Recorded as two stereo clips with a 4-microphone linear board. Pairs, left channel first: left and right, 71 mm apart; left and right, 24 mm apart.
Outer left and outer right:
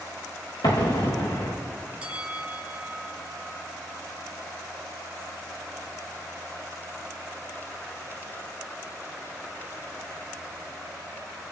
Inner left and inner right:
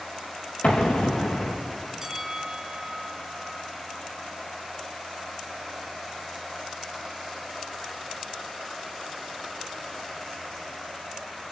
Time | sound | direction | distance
0.6 | an explosion | 85° left | 6 m
2.0 | a bell | 15° right (ahead or behind) | 2 m